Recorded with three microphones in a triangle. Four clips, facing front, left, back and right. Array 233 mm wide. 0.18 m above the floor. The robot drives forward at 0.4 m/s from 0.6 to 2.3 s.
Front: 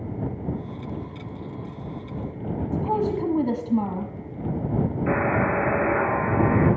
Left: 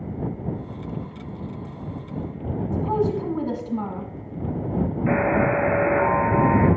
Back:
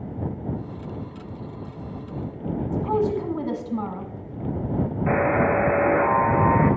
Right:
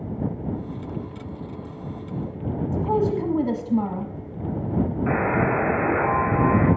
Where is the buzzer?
170° right, 4 m.